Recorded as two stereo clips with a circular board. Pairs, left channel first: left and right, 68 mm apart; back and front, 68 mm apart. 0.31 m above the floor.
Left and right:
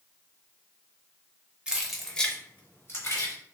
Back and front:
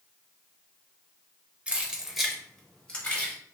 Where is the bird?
I don't hear a bird.